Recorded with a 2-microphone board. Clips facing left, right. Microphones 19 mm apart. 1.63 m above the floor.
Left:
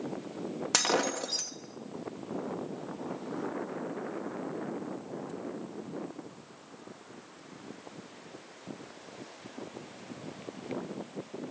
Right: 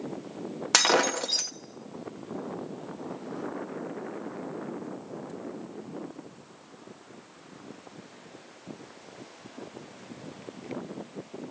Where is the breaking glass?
25° right (ahead or behind), 1.2 m.